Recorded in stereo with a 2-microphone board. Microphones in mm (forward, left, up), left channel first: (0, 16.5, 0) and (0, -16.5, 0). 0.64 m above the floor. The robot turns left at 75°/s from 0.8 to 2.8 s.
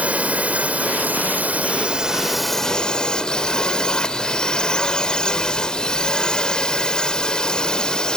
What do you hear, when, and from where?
0.0 s a drone: 60° right; by 8.2 s 150° left